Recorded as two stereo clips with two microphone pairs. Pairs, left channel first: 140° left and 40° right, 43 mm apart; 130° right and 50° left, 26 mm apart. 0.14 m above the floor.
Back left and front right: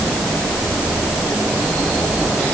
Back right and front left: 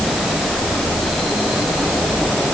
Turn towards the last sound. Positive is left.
No sound to turn to.